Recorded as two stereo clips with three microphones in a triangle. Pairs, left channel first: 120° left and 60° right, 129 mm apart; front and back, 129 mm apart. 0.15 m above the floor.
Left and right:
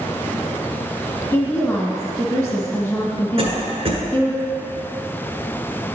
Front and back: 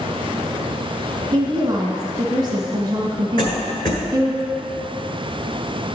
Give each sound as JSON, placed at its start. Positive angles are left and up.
{"t": 1.3, "sound": "a woman speaking", "azimuth_deg": 170, "distance_m": 1.8}
{"t": 3.4, "sound": "a cough", "azimuth_deg": -35, "distance_m": 1.6}